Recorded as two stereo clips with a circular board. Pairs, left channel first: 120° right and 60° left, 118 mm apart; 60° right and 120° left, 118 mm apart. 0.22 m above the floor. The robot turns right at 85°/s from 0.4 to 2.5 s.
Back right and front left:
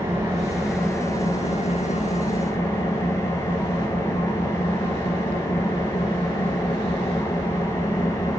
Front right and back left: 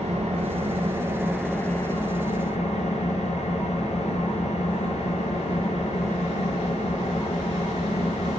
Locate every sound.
0.0 s an engine running: 125° left, 2.5 m; by 8.4 s 55° right, 2.5 m